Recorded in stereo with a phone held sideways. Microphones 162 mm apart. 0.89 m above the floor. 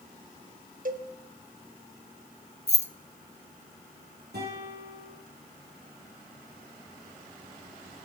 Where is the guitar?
85° right, 7.5 m.